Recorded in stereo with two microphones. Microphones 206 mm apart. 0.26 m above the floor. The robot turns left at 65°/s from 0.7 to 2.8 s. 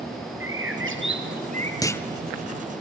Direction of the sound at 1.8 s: 15° left (ahead or behind).